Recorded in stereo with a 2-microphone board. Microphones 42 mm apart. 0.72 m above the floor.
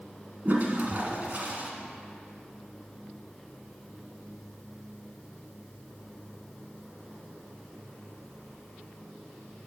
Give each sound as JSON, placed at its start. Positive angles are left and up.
{"t": 0.5, "sound": "a toilet flushing", "side_deg": -45, "distance_m": 1.1}